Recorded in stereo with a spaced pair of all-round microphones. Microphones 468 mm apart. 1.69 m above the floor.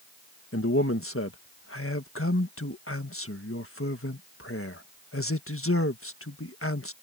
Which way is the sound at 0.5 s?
30° left (ahead or behind).